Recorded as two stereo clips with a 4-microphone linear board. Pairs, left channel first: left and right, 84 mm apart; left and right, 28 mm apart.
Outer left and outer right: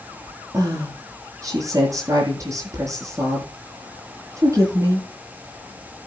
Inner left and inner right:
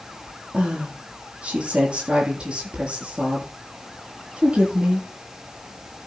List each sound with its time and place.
0.5 s a woman speaking: 40° right (ahead or behind), 7.5 m